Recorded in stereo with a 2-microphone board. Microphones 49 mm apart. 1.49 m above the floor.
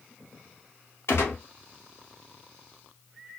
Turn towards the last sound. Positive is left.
turn(degrees=70)  # may be behind; listen again after turning